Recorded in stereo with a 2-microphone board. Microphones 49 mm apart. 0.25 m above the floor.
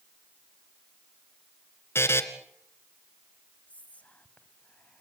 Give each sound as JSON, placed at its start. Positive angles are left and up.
{"t": 1.9, "sound": "a buzzer", "side_deg": 55, "distance_m": 1.9}
{"t": 3.7, "sound": "whispering", "side_deg": 30, "distance_m": 1.8}